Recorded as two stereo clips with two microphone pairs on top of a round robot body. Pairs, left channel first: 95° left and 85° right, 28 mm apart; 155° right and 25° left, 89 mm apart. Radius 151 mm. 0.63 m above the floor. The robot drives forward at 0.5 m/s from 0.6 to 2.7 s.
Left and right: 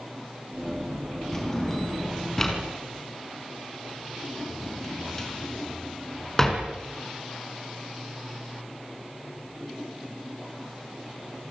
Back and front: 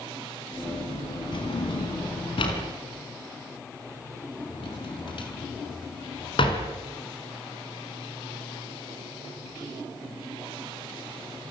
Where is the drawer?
170° left, 4.5 m.